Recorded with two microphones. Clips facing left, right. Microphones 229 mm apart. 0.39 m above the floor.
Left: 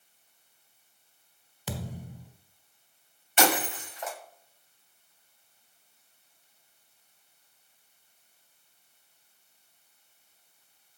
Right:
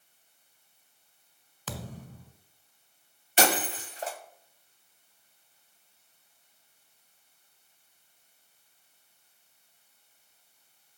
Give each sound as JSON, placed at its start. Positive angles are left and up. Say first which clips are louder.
{"t": 1.7, "sound": "a thud", "louder": "left 3 dB", "side_deg": 10, "distance_m": 1.4}
{"t": 3.4, "sound": "breaking glass", "louder": "left 1 dB", "side_deg": -35, "distance_m": 1.1}